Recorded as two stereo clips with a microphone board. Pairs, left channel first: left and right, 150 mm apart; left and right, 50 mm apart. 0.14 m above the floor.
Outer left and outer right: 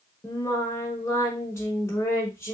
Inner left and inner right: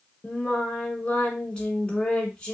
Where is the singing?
20° left (ahead or behind), 0.8 m.